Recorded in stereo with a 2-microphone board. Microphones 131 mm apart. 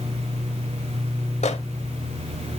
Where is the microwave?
60° left (ahead or behind), 1.2 m.